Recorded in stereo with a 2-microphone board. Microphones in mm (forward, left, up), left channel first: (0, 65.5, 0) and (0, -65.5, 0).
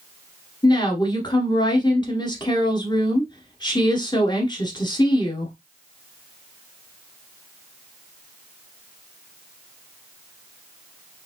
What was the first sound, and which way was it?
A woman speaking, 30° left (ahead or behind).